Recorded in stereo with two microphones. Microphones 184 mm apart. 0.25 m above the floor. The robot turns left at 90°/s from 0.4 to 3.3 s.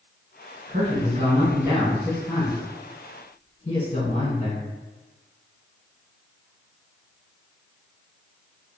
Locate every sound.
0.7 s a man speaking: 70° right, 1.5 m; by 4.7 s 55° left, 1.5 m